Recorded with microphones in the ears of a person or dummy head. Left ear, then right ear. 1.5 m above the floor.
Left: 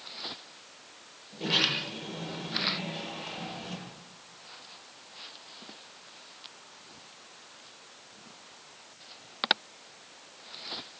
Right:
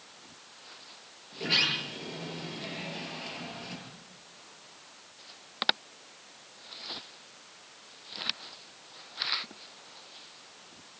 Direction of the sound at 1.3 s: 45° right (ahead or behind).